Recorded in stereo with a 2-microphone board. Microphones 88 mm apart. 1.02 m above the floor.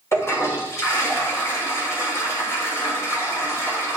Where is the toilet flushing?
35° left (ahead or behind), 3 m.